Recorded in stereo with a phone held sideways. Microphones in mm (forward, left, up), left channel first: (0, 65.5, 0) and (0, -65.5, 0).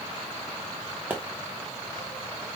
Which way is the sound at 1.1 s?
15° right (ahead or behind).